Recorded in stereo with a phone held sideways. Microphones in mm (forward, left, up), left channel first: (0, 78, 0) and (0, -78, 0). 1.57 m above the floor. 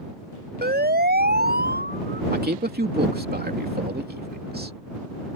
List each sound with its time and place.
0.6 s a siren: 80° right
2.3 s a man speaking: 75° right (ahead or behind)